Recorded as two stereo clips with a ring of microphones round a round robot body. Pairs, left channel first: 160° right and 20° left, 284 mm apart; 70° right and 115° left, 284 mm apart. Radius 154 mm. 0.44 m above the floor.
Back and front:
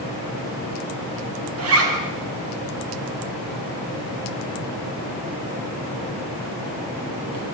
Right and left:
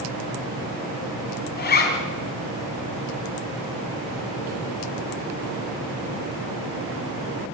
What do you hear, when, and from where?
1.6 s a zipper: 15° right, 4.5 m